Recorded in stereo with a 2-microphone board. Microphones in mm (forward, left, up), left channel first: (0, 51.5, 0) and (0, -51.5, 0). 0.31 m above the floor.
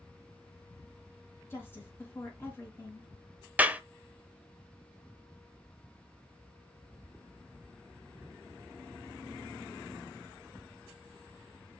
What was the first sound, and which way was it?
A woman speaking, 25° left (ahead or behind).